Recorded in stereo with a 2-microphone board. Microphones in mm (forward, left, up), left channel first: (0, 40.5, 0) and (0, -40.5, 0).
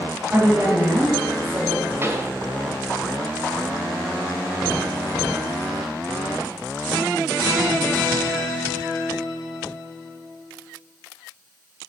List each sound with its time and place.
0.3 s a woman speaking: 20° right (ahead or behind), 2.5 m
2.0 s a pop: 35° right (ahead or behind), 1.0 m